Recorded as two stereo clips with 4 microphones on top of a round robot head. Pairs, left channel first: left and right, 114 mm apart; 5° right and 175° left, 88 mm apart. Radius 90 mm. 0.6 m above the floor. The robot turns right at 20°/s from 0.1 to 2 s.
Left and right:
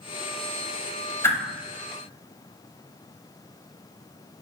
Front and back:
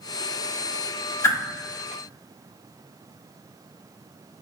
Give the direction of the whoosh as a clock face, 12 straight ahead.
11 o'clock.